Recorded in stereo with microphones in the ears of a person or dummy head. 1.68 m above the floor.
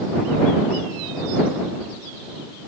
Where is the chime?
I don't hear a chime.